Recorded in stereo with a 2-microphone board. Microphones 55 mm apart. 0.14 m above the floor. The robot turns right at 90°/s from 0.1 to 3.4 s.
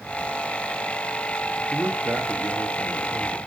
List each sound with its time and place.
1.7 s a man speaking: 170° right, 3 m; by 3.4 s 20° right, 3 m